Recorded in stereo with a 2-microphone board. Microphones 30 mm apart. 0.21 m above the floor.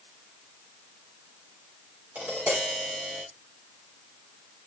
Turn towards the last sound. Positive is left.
turn(degrees=-75)  # may be behind; listen again after turning